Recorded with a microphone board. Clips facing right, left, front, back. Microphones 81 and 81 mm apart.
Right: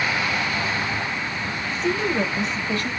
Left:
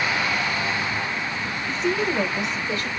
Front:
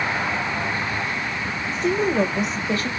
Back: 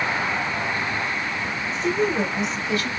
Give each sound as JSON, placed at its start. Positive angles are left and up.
{"t": 1.7, "sound": "a woman speaking", "azimuth_deg": -5, "distance_m": 1.6}